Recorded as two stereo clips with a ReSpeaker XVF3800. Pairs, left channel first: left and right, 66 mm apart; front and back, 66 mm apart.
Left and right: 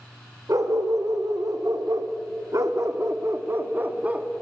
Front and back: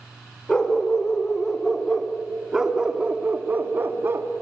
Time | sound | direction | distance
0.5 | a dog barking | 75° right | 2.5 m